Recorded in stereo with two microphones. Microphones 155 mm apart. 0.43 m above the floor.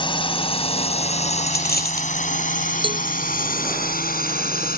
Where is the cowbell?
35° right (ahead or behind).